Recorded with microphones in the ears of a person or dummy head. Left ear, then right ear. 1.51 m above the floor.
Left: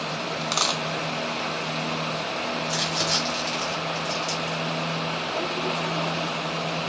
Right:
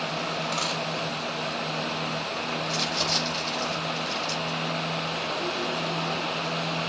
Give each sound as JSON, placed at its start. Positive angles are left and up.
{"t": 0.4, "sound": "a dropped coin", "side_deg": 55, "distance_m": 1.6}
{"t": 2.6, "sound": "crumpling", "side_deg": 65, "distance_m": 5.5}